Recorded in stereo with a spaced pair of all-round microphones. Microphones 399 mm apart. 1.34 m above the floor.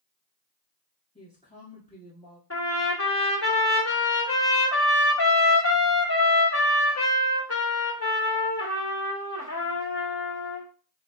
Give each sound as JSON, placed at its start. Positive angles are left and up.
{"t": 1.1, "sound": "a woman speaking", "side_deg": 20, "distance_m": 1.4}
{"t": 2.5, "sound": "a trumpet", "side_deg": 35, "distance_m": 1.7}